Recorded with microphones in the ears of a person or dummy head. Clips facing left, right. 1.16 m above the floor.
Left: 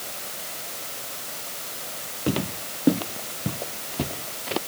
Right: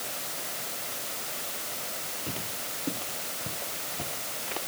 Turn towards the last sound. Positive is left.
turn(degrees=60)  # may be behind; listen again after turning